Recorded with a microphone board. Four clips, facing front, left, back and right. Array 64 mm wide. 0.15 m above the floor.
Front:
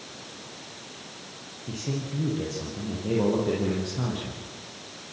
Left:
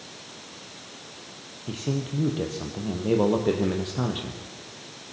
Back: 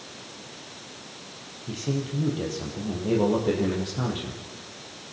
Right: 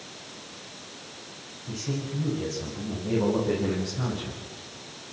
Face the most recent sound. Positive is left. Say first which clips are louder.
# left 3 dB, back 3 dB
turn(degrees=100)